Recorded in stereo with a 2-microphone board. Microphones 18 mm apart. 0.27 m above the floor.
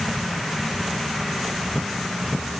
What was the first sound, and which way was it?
Only background noise.